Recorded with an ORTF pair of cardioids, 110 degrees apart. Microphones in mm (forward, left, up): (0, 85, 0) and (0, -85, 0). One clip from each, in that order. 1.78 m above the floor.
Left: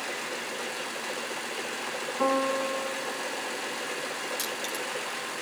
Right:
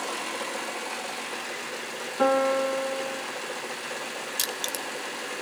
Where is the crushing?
50° right, 1.9 m.